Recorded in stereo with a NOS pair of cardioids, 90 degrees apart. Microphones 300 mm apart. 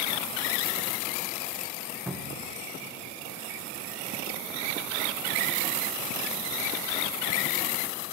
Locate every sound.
2.1 s a cupboard door: 5° right, 1.5 m